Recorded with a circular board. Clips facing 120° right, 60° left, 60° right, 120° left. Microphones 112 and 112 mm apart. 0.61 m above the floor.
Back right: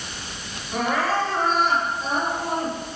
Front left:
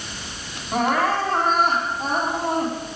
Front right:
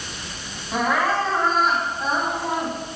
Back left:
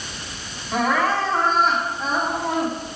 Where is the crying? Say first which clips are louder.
Front left 2 dB, back left 1 dB; 30° left, 5 m.